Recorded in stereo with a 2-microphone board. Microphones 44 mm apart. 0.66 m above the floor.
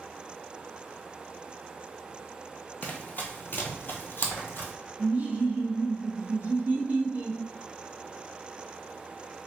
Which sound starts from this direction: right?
Laughter, at 5.0 s.